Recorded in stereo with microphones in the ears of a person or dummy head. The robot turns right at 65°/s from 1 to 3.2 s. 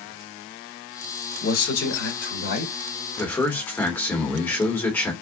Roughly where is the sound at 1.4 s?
Ahead left.